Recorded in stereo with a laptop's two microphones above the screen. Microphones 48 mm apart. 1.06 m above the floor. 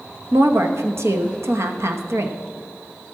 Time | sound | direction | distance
0.3 | a woman speaking | 75° right (ahead or behind) | 0.9 m